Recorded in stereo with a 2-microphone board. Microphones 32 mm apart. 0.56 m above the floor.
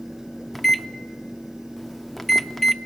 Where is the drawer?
I don't hear a drawer.